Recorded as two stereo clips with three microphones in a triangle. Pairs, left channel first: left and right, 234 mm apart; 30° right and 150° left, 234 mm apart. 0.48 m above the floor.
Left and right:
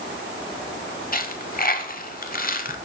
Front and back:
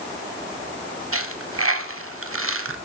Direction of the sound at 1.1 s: 135° left.